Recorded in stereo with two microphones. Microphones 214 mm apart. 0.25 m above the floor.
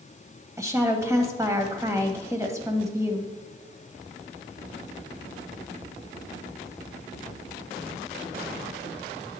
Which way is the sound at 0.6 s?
15° right (ahead or behind).